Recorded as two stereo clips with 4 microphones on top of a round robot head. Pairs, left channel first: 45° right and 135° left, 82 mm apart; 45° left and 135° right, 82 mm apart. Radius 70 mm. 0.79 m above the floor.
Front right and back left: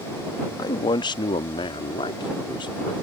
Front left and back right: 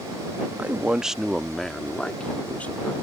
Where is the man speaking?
65° right; by 2.9 s 25° right.